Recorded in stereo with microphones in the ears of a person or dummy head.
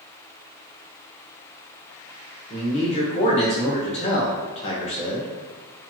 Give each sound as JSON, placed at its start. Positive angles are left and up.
{"t": 2.5, "sound": "a man speaking", "side_deg": 35, "distance_m": 1.2}